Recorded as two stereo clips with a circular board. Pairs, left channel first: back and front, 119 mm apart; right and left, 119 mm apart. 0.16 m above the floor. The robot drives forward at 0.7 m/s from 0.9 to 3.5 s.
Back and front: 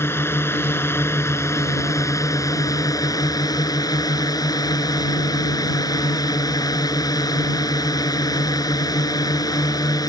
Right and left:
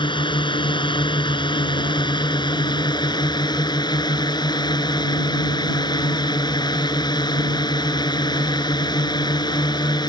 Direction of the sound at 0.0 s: 115° right.